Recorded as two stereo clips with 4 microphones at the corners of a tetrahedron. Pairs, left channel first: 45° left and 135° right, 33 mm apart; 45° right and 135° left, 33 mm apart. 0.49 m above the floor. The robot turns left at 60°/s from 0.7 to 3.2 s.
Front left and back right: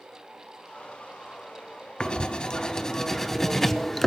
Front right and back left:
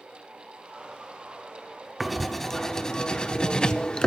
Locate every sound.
2.0 s writing: 50° left, 0.7 m; by 4.1 s 20° right, 0.7 m